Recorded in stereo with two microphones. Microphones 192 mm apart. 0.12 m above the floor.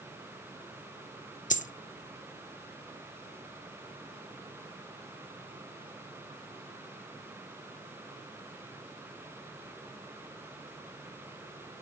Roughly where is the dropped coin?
Left.